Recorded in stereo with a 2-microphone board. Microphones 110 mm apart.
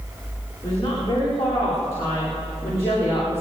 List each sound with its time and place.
0.6 s a woman speaking: 30° left (ahead or behind), 9 m; by 3.4 s 25° left (ahead or behind), 10 m